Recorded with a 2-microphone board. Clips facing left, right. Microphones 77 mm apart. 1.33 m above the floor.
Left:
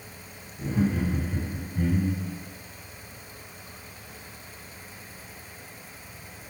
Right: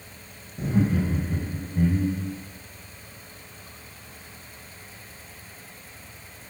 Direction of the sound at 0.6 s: 60° right (ahead or behind).